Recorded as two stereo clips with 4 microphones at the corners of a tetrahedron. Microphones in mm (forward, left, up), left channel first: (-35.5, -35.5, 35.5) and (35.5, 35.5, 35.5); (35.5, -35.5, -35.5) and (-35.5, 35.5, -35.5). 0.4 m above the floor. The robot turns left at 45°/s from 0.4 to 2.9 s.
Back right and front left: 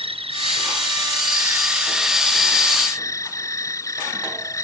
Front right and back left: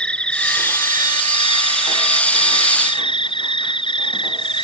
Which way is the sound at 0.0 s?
35° left.